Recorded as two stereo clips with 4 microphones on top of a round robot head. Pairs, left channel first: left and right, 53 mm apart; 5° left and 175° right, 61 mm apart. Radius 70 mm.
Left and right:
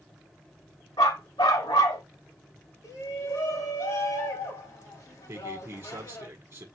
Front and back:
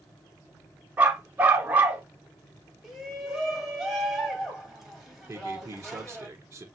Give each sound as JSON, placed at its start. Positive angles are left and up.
{"t": 1.0, "sound": "a dog barking", "azimuth_deg": 125, "distance_m": 0.8}
{"t": 2.8, "sound": "a shout", "azimuth_deg": 95, "distance_m": 3.0}
{"t": 5.3, "sound": "a man speaking", "azimuth_deg": -125, "distance_m": 1.4}